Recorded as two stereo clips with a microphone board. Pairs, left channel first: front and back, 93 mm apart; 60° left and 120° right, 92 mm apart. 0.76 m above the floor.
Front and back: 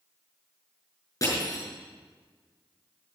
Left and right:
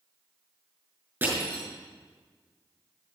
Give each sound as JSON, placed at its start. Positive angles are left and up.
{"t": 1.2, "sound": "crushing", "azimuth_deg": -55, "distance_m": 5.5}